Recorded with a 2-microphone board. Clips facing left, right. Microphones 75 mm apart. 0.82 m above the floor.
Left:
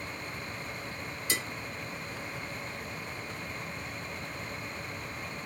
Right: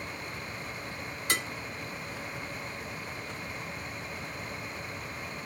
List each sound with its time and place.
1.3 s dishes clattering: 55° right (ahead or behind), 0.7 m